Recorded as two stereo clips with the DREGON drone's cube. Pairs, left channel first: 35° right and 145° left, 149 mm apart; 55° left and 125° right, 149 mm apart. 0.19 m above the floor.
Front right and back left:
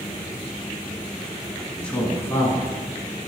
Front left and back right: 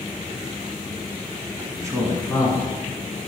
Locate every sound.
1.6 s a man speaking: 120° right, 1.3 m; by 2.7 s 25° left, 1.4 m